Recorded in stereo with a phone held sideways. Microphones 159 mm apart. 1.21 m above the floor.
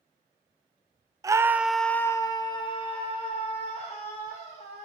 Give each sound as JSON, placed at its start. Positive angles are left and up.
{"t": 1.2, "sound": "a scream", "side_deg": -20, "distance_m": 0.5}